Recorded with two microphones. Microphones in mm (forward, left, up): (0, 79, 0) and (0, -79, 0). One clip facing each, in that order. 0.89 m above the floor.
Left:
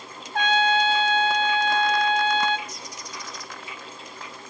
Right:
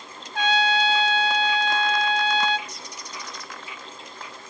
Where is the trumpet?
50° left (ahead or behind), 0.9 m.